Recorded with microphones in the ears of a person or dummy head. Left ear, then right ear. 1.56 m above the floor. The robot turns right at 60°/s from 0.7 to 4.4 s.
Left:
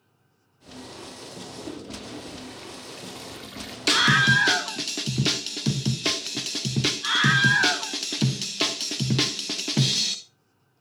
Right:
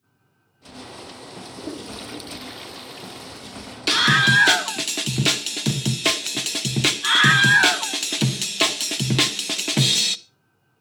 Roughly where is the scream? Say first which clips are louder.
Right 2 dB; behind.